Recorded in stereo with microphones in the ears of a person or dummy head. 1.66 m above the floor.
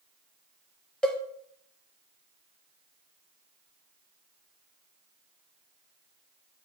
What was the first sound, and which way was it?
A cowbell, 5° left (ahead or behind).